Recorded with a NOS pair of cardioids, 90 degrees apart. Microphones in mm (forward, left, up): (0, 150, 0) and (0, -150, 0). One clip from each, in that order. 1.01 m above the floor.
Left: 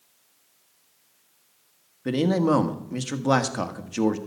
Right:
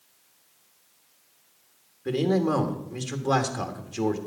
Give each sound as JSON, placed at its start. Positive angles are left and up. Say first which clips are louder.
{"t": 2.0, "sound": "a man speaking", "louder": "left 2 dB", "azimuth_deg": 35, "distance_m": 1.5}